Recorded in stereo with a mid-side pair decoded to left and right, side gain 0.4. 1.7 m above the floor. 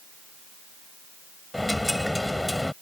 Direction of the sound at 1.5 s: 10° left.